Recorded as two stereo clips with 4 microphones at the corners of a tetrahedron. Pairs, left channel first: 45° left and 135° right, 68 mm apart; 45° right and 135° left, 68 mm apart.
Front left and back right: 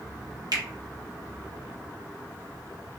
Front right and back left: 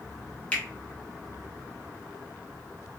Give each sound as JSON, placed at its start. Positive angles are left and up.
{"t": 0.5, "sound": "a finger snap", "azimuth_deg": -115, "distance_m": 0.7}